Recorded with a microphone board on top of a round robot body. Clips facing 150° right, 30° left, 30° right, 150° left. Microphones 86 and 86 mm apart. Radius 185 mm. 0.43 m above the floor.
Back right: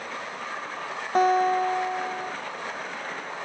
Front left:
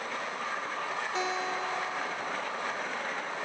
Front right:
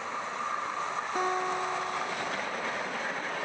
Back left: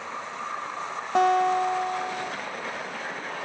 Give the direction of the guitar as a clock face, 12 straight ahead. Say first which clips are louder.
Back right 15 dB, back left 11 dB; 6 o'clock.